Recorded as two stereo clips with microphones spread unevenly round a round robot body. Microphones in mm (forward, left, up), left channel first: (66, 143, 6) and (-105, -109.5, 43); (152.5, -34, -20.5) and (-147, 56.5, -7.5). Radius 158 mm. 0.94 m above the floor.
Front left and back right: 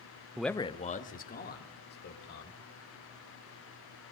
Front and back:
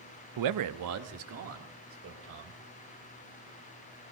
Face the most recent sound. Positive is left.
turn(degrees=110)